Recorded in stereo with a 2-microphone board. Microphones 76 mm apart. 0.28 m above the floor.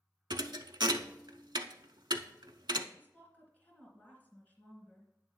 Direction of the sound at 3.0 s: 20° left (ahead or behind).